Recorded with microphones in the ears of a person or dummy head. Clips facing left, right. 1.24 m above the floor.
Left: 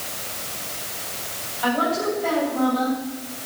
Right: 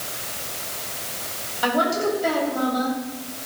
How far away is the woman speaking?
About 9 m.